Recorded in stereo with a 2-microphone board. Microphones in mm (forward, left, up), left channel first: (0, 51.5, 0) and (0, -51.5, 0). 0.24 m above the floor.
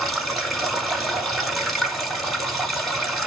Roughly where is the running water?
Centre.